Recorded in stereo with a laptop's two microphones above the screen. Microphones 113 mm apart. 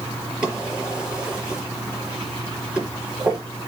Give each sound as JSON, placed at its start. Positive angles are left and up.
{"t": 0.4, "sound": "a drawer", "side_deg": -10, "distance_m": 6.0}